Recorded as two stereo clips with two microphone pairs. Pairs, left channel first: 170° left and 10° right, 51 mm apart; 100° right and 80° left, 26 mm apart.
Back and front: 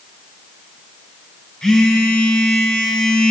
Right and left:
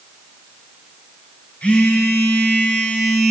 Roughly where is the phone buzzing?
Behind right.